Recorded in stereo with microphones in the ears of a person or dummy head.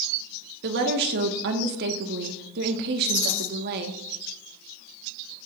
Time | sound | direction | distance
0.6 | a woman speaking | 60° right (ahead or behind) | 1.6 m
3.0 | a rattle | 60° left (ahead or behind) | 4.5 m